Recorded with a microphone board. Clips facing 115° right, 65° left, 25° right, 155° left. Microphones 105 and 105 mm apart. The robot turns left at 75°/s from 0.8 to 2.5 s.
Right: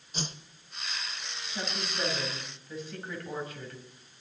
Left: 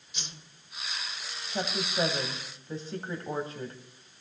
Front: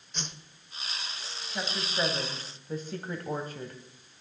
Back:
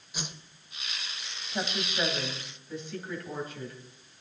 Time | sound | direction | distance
0.1 | a whoosh | 125° right | 1.0 m
1.5 | a woman speaking | 90° left | 2.5 m